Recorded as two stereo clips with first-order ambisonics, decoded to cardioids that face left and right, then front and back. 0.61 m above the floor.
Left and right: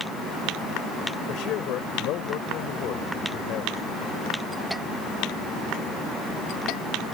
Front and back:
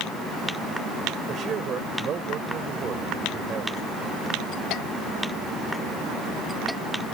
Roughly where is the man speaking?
Behind left.